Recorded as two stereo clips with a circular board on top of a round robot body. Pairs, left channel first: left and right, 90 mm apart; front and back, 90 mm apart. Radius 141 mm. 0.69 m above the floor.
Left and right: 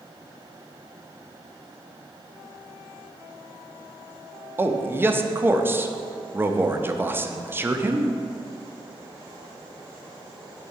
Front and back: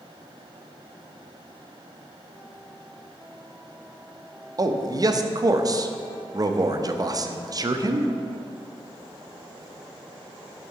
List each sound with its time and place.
4.6 s a man speaking: 150° right, 0.6 m